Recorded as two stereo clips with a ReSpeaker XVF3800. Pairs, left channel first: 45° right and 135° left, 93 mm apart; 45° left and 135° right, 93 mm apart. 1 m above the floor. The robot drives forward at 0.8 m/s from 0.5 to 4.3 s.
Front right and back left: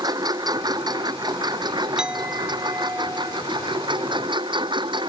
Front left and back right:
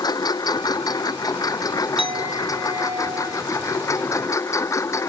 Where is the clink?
140° right; by 5.0 s 170° right.